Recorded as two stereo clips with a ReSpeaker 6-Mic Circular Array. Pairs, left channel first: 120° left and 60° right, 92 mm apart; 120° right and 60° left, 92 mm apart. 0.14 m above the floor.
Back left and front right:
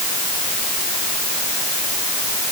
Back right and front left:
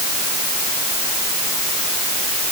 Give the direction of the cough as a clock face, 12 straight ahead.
I don't hear a cough.